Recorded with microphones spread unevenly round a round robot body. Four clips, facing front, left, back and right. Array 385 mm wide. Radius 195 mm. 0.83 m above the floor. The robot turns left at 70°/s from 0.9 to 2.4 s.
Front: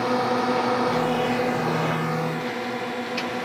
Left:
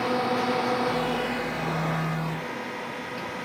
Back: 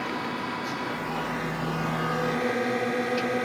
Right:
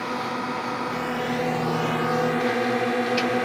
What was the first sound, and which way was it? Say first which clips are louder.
A drone: left 3 dB, front 9 dB; 10° left.